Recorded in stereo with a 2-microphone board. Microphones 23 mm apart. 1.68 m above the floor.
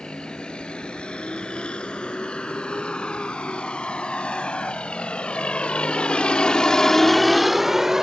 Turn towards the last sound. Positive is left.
turn(degrees=-20)  # may be behind; listen again after turning